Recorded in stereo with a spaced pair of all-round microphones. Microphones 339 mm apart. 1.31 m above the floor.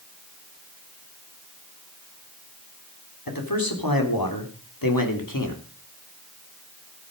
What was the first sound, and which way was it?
A man speaking, 85° left.